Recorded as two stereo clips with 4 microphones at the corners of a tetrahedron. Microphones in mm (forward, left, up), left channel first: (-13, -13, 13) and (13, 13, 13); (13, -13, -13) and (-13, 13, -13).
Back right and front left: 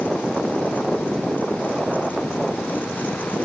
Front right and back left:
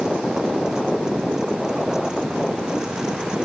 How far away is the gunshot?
I don't hear a gunshot.